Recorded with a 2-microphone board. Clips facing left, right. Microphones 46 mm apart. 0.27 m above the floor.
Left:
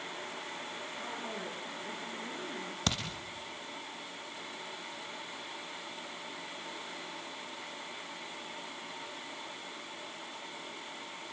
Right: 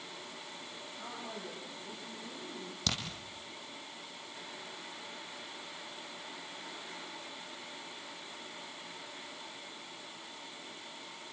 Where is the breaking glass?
No breaking glass in this recording.